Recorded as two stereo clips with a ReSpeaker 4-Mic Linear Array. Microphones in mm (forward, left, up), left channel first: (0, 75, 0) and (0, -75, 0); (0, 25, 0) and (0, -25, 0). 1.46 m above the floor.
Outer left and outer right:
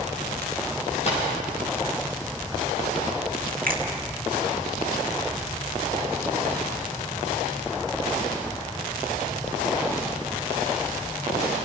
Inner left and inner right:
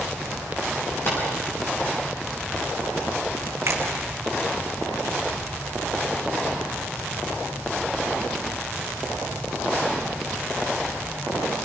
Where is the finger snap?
75° right (ahead or behind), 2 m.